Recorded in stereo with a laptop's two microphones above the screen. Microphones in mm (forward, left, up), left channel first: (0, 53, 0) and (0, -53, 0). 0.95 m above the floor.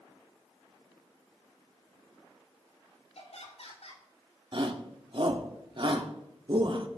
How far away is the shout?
About 1.7 m.